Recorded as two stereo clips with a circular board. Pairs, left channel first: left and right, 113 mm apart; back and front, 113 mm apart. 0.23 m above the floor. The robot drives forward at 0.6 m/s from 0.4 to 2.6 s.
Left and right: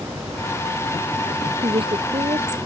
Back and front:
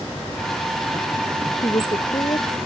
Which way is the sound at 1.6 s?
130° right.